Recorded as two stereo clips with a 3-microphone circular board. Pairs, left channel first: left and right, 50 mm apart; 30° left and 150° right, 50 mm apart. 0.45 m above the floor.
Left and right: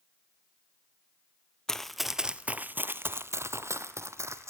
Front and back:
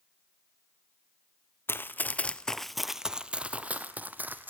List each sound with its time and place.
1.7 s running footsteps: 10° left, 0.6 m; by 4.5 s 100° right, 1.3 m